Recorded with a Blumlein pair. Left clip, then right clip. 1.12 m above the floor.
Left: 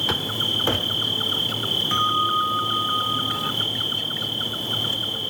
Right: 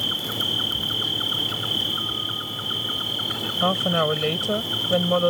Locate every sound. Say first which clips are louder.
0.0 s an insect: left 1 dB; straight ahead
1.9 s a bell: left 6 dB; 50° left
3.6 s a woman speaking: right 3 dB; 45° right